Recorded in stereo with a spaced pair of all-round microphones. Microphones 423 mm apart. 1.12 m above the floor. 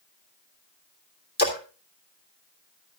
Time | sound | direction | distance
1.4 | a splash | 20° left (ahead or behind) | 3 m